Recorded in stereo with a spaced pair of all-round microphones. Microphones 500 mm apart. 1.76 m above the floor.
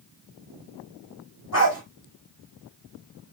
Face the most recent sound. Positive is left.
turn(degrees=30)  # may be behind; listen again after turning